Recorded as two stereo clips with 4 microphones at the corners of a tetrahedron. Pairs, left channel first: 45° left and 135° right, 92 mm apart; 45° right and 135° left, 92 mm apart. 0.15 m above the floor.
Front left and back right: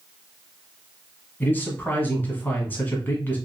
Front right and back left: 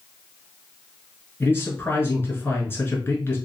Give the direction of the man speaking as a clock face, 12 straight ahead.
12 o'clock.